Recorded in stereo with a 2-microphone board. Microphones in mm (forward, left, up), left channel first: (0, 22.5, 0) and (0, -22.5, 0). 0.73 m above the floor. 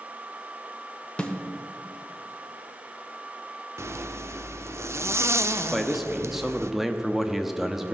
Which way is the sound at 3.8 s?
80° right.